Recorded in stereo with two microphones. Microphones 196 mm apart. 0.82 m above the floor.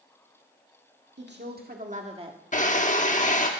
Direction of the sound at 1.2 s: 65° right (ahead or behind).